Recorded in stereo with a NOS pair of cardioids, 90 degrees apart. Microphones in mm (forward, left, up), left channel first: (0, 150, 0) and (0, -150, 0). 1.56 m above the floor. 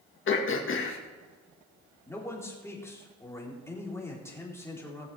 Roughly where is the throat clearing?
Ahead left.